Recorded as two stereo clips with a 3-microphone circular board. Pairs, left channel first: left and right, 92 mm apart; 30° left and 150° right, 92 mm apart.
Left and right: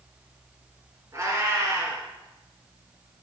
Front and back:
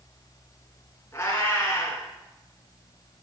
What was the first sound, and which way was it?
A cat meowing, 30° right.